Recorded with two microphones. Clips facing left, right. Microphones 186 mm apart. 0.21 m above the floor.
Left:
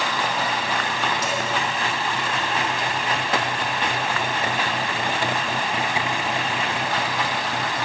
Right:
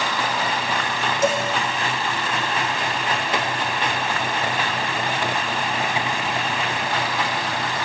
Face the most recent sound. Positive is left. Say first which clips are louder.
# right 6 dB
turn(degrees=-45)  # may be behind; listen again after turning